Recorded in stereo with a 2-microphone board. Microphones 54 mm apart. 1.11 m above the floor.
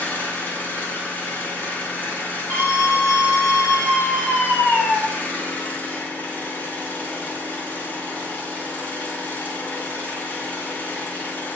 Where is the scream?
45° left (ahead or behind), 1.7 m.